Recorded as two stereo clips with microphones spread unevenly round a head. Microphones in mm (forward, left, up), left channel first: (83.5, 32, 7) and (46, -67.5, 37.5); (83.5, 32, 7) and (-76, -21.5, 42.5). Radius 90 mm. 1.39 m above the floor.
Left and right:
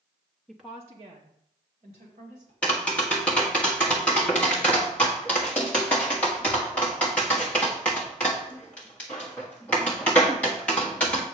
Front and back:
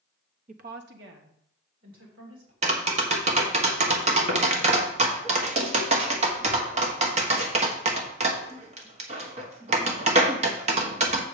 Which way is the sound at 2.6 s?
145° left.